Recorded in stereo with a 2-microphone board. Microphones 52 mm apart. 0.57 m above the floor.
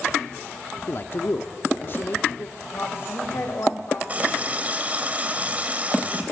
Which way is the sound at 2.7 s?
50° left (ahead or behind).